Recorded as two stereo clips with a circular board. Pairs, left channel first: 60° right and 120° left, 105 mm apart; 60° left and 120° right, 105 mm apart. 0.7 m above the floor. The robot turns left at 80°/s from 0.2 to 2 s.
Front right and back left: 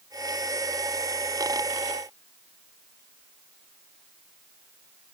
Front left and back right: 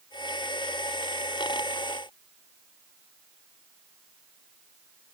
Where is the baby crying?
I don't hear a baby crying.